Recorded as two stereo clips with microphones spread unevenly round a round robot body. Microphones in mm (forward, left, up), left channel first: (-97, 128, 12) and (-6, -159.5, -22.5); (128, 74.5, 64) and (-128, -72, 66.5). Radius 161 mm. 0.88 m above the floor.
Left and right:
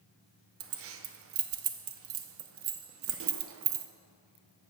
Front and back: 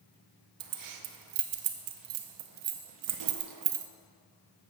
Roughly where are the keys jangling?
Behind right.